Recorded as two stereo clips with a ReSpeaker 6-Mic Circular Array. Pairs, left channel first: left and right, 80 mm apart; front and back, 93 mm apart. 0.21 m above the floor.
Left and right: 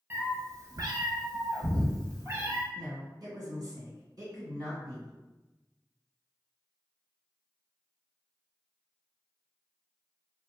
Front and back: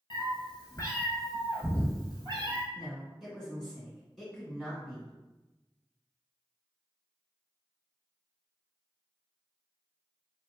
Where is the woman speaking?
95° right, 1.9 m.